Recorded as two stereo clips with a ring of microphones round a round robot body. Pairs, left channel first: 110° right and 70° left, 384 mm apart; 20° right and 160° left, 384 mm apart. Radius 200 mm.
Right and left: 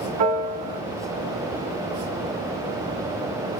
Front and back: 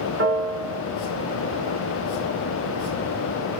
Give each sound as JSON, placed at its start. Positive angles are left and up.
{"t": 0.2, "sound": "a piano", "azimuth_deg": 95, "distance_m": 1.3}